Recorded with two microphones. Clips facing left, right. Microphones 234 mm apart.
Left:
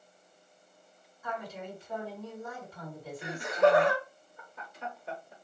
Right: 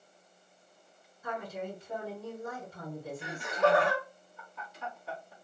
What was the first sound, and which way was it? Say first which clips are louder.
A woman speaking: right 2 dB; 25° right (ahead or behind).